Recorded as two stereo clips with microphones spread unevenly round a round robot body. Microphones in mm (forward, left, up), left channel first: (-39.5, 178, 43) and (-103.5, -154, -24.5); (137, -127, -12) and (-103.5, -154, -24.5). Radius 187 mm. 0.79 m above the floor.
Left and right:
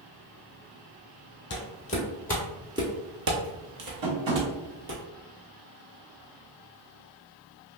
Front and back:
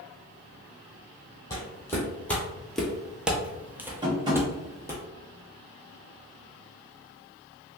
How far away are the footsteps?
About 1.0 m.